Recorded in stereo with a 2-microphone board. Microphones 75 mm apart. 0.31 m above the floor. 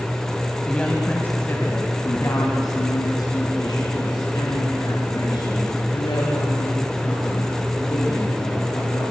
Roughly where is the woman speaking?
Centre.